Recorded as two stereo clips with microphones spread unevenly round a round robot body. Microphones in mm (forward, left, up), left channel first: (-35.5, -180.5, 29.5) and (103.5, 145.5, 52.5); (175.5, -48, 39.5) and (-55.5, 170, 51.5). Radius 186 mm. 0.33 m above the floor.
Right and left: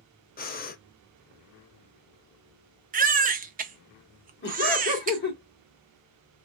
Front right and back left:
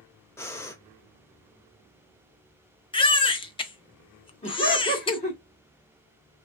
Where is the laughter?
90° right, 1.5 m.